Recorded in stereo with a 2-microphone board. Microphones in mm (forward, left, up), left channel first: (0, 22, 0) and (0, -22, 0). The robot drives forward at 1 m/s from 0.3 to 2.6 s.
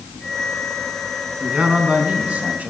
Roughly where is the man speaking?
Right.